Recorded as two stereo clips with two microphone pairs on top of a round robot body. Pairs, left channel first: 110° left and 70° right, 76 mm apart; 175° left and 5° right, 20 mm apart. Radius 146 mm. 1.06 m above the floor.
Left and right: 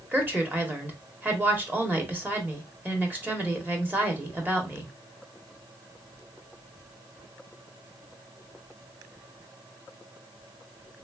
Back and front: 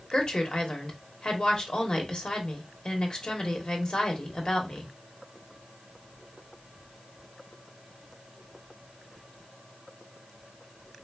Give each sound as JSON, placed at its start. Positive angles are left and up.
{"t": 0.1, "sound": "a woman speaking", "azimuth_deg": -135, "distance_m": 1.1}